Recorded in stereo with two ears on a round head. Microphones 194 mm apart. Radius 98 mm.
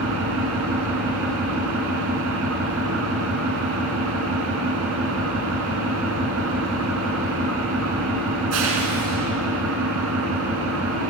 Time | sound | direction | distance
0.0 | an engine running | 75° right (ahead or behind) | 4 m